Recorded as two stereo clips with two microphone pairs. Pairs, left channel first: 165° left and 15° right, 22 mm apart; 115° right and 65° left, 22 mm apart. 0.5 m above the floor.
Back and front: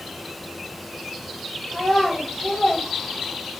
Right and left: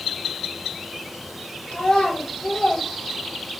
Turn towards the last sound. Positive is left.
turn(degrees=-105)